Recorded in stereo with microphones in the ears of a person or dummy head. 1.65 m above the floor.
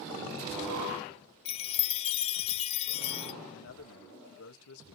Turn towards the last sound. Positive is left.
turn(degrees=85)